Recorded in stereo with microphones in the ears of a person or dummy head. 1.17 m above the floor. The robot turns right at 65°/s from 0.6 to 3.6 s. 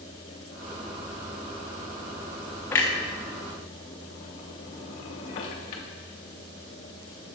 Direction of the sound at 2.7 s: 10° left (ahead or behind).